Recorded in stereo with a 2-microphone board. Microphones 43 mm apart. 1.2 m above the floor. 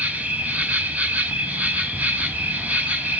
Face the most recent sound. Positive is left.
turn(degrees=-35)  # may be behind; listen again after turning